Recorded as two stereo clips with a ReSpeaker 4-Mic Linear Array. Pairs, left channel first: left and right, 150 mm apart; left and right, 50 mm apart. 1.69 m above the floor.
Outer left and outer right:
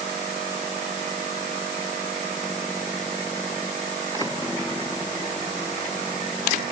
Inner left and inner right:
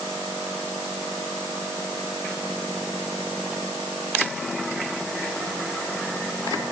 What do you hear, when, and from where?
Only background noise.